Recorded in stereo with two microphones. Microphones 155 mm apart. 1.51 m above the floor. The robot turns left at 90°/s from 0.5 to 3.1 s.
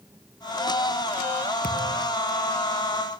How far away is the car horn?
I don't hear a car horn.